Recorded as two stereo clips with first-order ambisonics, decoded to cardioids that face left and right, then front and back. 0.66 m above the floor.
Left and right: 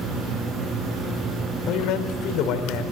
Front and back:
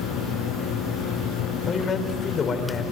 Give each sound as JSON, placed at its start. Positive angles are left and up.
{"t": 1.7, "sound": "a man speaking", "azimuth_deg": 65, "distance_m": 3.0}